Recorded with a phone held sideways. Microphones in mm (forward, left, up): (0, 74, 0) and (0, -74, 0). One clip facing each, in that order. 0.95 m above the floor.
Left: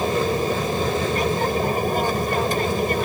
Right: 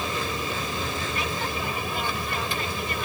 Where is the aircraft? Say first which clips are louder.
Left 9 dB; 45° left (ahead or behind).